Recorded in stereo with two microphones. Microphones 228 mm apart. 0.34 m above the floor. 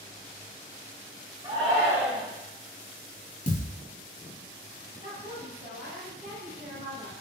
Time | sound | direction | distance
1.4 | a shout | 25° right (ahead or behind) | 1.2 m
3.5 | a thud | 35° left (ahead or behind) | 0.7 m
5.0 | a woman speaking | 35° right (ahead or behind) | 1.3 m